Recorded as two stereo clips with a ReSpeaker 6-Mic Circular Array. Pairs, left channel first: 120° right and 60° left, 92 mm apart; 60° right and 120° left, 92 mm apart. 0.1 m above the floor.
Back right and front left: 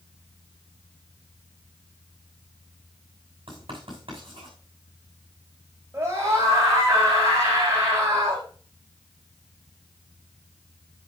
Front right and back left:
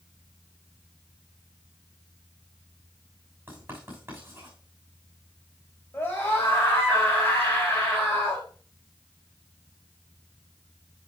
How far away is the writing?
About 6.5 m.